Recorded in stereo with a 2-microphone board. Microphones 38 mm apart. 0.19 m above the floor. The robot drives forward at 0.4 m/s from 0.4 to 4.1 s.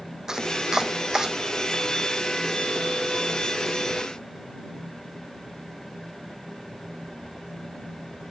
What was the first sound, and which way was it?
Chopping, 15° right (ahead or behind).